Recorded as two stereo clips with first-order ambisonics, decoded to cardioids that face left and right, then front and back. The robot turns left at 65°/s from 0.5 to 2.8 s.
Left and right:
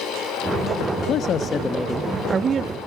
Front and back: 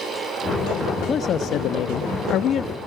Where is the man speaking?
60° left, 0.5 m; by 2.8 s 50° right, 0.5 m.